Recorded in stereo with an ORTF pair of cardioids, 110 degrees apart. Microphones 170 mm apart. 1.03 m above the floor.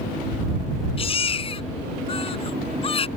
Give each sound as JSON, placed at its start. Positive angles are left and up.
{"t": 1.0, "sound": "a baby crying", "azimuth_deg": 35}